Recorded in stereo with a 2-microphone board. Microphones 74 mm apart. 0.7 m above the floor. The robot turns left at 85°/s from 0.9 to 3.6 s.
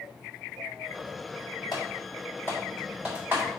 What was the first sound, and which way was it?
Typing on a keyboard, 70° left (ahead or behind).